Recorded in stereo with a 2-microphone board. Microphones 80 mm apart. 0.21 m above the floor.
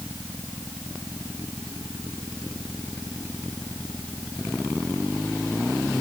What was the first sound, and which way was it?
Only background noise.